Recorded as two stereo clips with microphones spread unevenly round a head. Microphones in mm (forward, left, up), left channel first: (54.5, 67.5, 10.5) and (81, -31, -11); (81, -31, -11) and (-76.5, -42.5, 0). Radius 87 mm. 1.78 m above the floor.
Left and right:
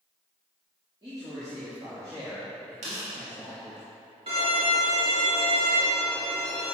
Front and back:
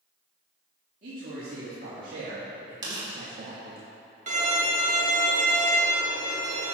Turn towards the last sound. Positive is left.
turn(degrees=-135)